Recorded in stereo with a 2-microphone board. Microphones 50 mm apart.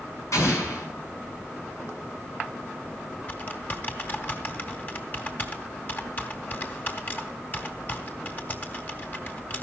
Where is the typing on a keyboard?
35° left (ahead or behind), 1.8 m.